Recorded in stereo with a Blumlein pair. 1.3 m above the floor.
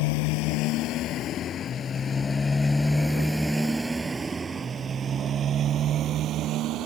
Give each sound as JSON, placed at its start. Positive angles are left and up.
{"t": 0.0, "sound": "a motorcycle", "azimuth_deg": 45}